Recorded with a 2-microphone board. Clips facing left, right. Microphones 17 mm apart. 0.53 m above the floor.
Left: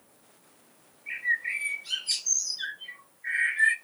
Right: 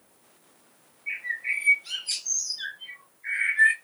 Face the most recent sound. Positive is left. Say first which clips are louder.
# left 1 dB
turn(degrees=-10)  # may be behind; listen again after turning